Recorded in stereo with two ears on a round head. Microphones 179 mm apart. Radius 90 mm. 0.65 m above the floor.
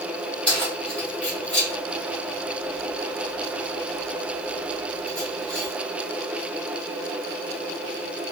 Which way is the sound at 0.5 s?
5° left (ahead or behind).